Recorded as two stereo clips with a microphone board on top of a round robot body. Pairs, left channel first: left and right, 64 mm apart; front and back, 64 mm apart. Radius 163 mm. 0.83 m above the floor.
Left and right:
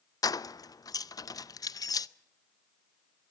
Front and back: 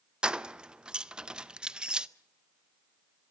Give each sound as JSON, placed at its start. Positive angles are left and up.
{"t": 0.2, "sound": "keys jangling", "azimuth_deg": 105, "distance_m": 0.6}